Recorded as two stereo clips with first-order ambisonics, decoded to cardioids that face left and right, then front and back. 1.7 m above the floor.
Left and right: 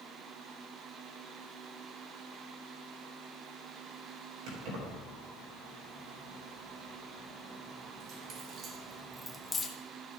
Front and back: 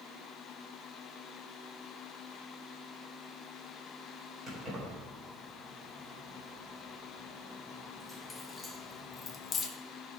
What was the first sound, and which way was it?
Keys jangling, 105° right.